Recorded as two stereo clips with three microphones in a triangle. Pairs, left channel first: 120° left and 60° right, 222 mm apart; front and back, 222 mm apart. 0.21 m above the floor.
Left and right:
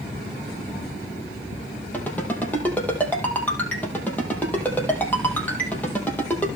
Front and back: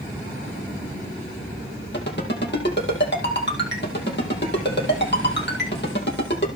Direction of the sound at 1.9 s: 35° left.